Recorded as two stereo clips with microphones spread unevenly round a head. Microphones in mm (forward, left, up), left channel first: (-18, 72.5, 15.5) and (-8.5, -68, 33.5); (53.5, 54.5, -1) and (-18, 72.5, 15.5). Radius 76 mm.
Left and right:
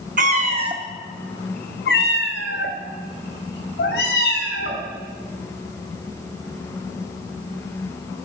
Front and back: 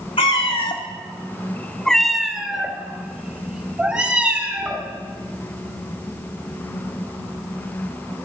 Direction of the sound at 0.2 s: 55° right.